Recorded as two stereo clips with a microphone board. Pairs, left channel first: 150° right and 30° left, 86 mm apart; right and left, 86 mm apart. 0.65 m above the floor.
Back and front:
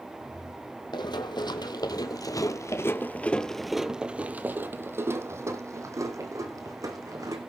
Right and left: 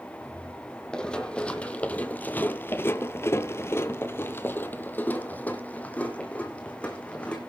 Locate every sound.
0.9 s running footsteps: 170° right, 1.3 m; by 7.4 s 15° right, 2 m